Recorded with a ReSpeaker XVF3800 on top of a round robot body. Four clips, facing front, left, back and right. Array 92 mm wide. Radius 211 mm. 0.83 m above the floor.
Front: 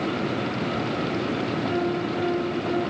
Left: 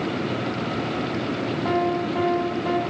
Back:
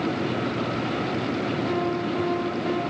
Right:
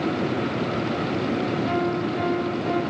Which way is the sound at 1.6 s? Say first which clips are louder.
Left 1 dB, even; 95° left.